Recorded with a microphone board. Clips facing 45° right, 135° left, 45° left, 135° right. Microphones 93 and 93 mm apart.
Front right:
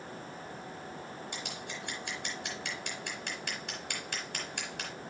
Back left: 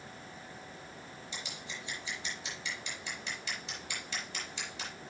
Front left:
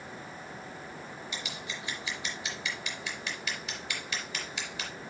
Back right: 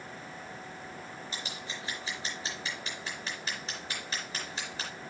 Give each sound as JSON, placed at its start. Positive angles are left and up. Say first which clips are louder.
{"t": 1.3, "sound": "scissors", "louder": "front right 4 dB, front left 1 dB", "azimuth_deg": -80, "distance_m": 4.5}